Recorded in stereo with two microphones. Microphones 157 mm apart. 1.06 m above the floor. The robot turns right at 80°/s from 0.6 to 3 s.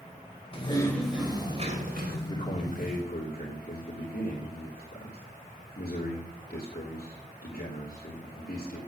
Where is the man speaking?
20° left, 3 m; by 8.8 s 80° left, 3 m.